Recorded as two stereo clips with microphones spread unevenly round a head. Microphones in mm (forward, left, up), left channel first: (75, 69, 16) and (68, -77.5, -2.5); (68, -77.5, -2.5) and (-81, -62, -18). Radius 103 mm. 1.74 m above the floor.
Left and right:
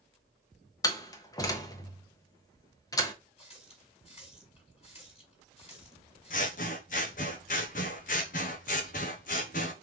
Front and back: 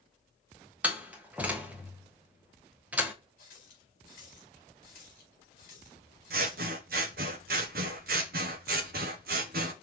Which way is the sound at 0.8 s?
90° left.